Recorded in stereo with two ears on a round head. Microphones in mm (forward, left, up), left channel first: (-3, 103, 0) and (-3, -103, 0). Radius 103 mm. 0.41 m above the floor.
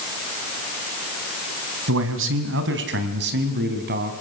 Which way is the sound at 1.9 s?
60° right (ahead or behind).